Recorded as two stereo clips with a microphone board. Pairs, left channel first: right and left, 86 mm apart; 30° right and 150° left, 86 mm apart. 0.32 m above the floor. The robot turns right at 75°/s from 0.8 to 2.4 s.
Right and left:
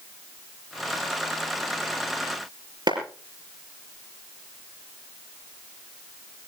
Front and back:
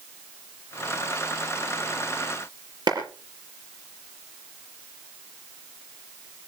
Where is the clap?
115° left, 5 m.